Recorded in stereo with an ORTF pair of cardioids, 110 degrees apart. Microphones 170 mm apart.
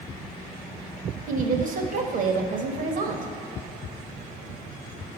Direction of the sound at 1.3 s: 55° right.